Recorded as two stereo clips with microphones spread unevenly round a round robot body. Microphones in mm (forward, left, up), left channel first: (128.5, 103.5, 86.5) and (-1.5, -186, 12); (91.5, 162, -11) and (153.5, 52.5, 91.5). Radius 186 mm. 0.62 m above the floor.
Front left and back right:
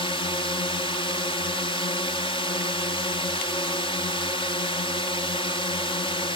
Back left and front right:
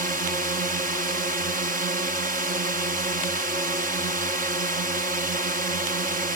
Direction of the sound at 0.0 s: 20° right.